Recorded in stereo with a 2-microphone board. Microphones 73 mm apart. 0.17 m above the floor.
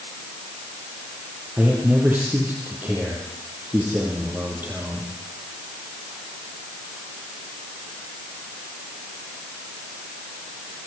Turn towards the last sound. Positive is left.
turn(degrees=-25)  # may be behind; listen again after turning